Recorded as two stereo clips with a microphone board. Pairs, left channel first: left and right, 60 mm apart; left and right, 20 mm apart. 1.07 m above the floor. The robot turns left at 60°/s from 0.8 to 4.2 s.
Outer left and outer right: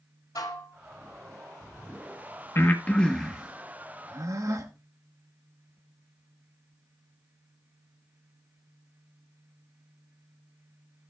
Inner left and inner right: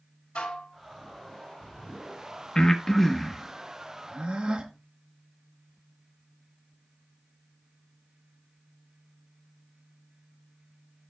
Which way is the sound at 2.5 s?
40° left (ahead or behind).